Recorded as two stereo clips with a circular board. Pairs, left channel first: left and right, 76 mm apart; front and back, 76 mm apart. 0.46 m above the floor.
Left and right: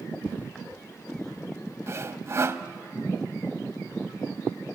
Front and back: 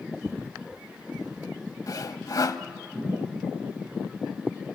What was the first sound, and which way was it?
Footsteps, 150° left.